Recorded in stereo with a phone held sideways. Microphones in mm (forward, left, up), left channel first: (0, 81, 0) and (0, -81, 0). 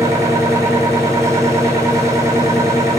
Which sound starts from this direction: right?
A machine running, at 0.0 s.